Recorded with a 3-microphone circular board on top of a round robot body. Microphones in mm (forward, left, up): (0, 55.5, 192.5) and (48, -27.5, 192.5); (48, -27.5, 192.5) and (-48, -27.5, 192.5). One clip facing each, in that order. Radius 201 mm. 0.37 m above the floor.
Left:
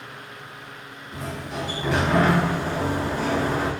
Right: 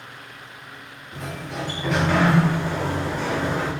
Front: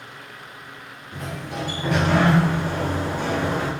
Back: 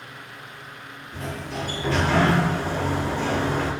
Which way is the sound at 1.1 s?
35° left.